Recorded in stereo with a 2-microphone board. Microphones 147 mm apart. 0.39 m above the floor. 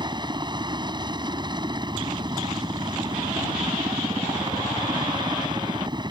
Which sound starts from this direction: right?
A helicopter, at 0.0 s.